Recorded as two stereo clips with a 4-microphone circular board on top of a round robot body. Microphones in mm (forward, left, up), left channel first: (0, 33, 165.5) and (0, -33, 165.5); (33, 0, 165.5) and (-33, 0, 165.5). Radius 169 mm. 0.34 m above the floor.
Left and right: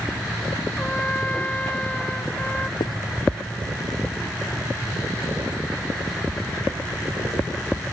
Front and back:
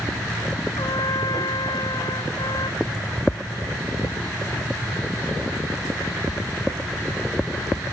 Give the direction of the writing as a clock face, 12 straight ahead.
9 o'clock.